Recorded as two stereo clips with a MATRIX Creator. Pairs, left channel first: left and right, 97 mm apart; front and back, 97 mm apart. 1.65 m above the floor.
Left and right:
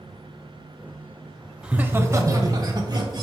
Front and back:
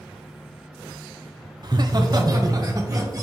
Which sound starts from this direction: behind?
Laughter, at 1.6 s.